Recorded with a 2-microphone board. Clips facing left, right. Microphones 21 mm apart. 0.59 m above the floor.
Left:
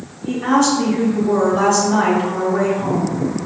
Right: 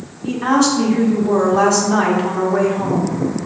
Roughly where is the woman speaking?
Right.